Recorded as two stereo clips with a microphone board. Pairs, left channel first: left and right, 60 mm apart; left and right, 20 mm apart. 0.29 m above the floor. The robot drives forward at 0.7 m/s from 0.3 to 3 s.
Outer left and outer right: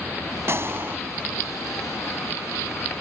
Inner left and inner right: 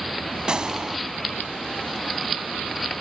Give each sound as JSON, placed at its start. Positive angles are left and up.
{"t": 0.5, "sound": "a gunshot", "side_deg": -45, "distance_m": 1.4}